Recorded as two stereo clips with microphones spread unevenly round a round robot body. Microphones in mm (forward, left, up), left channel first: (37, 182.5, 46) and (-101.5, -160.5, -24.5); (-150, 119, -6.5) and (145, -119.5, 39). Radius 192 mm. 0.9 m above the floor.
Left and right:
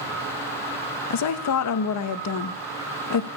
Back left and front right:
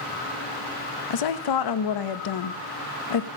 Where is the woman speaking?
120° left, 0.7 m.